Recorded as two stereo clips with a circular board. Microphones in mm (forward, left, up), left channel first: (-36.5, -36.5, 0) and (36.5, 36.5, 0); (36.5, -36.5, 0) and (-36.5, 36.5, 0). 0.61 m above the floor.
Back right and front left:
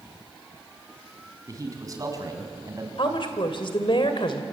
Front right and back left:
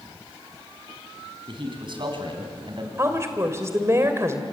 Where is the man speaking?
100° left, 4.5 m.